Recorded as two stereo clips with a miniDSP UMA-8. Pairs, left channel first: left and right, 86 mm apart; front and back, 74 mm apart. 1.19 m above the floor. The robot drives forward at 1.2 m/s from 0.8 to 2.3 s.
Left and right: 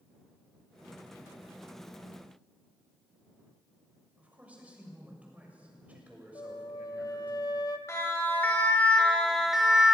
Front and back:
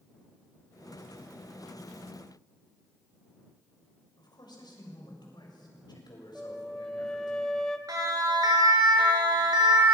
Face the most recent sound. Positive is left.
turn(degrees=-175)